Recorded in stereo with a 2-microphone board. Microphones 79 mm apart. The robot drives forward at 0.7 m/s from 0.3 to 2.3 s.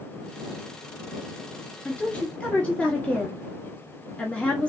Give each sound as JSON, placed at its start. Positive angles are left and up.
{"t": 1.9, "sound": "a woman speaking", "side_deg": 15, "distance_m": 1.2}